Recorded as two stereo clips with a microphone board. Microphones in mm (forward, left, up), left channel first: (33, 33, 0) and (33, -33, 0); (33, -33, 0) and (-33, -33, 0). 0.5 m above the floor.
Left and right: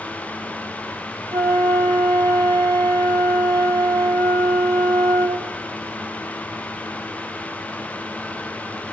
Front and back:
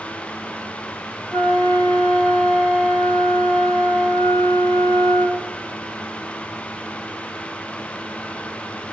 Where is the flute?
65° right, 2 m.